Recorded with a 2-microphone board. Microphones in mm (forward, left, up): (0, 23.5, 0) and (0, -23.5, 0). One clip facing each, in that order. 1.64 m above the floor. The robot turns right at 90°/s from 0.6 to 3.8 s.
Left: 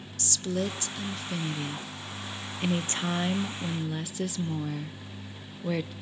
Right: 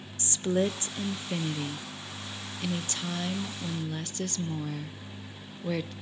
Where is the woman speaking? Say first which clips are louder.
Right 4 dB; 115° right, 0.5 m; by 5.9 s 170° left, 0.5 m.